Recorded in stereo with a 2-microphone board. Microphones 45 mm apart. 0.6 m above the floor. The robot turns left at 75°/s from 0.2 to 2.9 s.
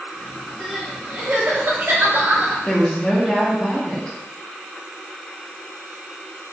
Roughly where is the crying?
Ahead.